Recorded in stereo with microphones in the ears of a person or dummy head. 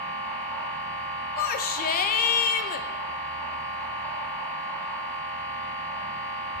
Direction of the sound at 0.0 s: 15° left (ahead or behind).